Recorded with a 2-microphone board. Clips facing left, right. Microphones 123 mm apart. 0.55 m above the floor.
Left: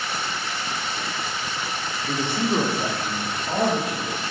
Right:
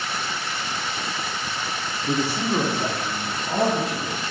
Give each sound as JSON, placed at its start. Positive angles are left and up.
{"t": 2.1, "sound": "a man speaking", "side_deg": -25, "distance_m": 0.6}